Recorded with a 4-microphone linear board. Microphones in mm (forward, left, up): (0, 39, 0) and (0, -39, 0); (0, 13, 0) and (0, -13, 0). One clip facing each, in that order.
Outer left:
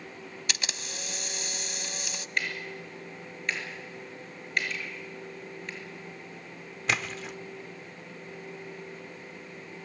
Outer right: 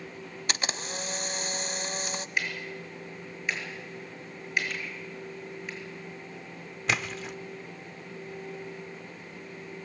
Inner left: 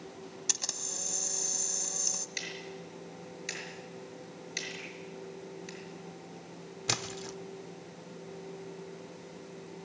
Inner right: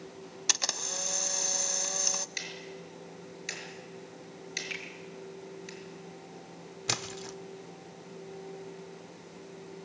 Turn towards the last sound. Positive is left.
turn(degrees=0)  # may be behind; listen again after turning